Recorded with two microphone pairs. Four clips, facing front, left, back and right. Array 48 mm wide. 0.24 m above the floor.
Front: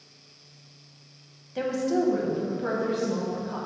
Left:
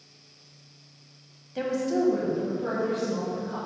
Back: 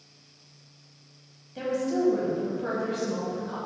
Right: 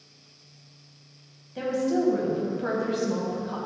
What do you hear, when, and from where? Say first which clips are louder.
1.6 s a woman speaking: right 1 dB, front 2 dB; 35° left, 1.1 m; by 3.6 s 100° right, 1.5 m